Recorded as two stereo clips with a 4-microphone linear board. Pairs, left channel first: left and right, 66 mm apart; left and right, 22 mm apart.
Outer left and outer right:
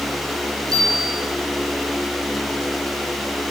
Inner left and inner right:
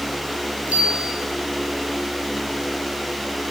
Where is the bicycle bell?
85° right, 10 m.